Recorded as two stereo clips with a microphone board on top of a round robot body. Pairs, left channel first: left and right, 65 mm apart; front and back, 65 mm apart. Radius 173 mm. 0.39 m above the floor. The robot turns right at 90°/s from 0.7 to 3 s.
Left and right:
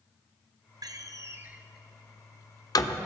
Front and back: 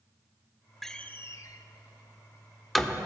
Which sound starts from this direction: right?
A door slam, at 0.8 s.